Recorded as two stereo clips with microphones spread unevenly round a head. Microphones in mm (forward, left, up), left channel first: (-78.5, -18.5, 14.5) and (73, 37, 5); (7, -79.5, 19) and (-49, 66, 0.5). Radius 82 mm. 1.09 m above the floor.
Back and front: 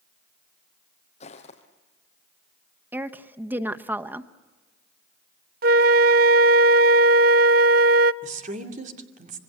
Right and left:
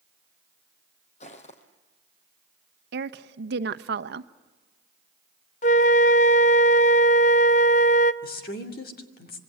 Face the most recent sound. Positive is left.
turn(degrees=-30)